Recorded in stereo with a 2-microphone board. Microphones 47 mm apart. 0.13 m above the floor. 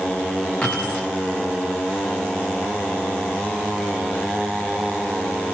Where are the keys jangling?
20° left (ahead or behind), 8 m.